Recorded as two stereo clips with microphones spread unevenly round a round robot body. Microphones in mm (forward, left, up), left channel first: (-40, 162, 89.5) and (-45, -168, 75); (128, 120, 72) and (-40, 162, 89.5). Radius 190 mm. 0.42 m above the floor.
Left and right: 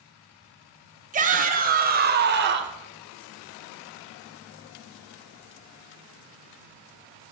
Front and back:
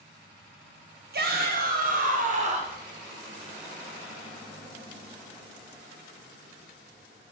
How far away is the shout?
About 2.5 m.